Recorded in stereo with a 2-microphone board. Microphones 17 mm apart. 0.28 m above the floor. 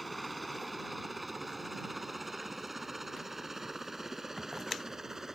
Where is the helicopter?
5° left (ahead or behind); by 5.4 s 20° right (ahead or behind).